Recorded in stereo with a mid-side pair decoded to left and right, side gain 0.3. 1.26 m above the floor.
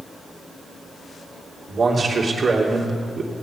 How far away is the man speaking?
About 3 m.